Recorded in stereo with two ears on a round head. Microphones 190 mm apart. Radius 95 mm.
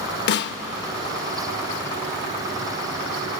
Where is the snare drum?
50° left (ahead or behind), 0.6 m.